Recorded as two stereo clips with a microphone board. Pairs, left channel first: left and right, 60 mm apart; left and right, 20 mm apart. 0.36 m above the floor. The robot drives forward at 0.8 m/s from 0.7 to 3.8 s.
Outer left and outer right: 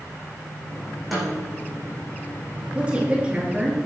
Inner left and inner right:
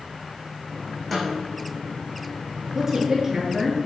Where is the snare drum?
Centre (ahead or behind), 6 m.